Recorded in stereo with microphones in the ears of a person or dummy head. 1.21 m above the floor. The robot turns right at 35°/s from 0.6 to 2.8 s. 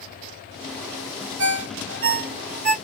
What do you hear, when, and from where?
1.4 s a ringtone: 70° right (ahead or behind), 1.1 m; by 2.8 s 40° right (ahead or behind), 1.1 m